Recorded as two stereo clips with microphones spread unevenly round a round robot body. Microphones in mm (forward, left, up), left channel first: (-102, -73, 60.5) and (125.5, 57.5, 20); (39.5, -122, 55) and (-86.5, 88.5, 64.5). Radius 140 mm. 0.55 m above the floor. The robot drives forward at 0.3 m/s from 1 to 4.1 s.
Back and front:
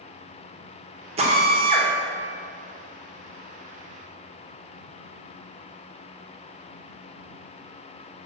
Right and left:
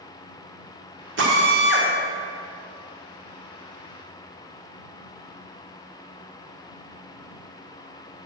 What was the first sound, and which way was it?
A drill, 85° left.